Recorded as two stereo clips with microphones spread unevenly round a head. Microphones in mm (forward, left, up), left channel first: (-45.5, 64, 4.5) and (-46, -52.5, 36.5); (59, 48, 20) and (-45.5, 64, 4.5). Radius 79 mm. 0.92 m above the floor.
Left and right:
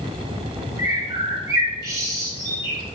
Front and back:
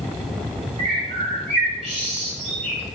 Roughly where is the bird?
Behind.